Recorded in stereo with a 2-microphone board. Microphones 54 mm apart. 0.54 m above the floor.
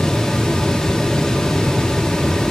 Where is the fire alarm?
I don't hear a fire alarm.